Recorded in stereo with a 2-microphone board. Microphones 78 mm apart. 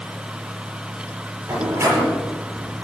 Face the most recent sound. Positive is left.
turn(degrees=-45)  # may be behind; listen again after turning